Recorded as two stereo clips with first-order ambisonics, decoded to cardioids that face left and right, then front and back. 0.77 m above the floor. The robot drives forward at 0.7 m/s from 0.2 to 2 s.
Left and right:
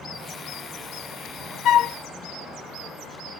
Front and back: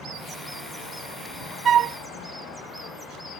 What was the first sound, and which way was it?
A flute, 125° left.